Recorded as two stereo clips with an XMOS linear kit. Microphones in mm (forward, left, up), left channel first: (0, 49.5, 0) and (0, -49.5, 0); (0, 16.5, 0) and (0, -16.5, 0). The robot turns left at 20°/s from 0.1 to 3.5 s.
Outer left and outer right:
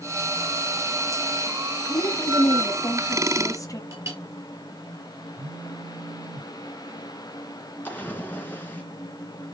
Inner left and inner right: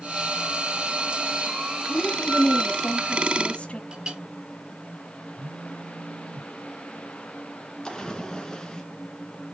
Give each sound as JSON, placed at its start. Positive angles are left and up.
{"t": 1.9, "sound": "a woman speaking", "azimuth_deg": 115, "distance_m": 1.3}
{"t": 3.9, "sound": "a clink", "side_deg": -30, "distance_m": 3.5}
{"t": 5.4, "sound": "a phone buzzing", "side_deg": -80, "distance_m": 1.3}
{"t": 7.8, "sound": "a splash", "side_deg": 20, "distance_m": 2.5}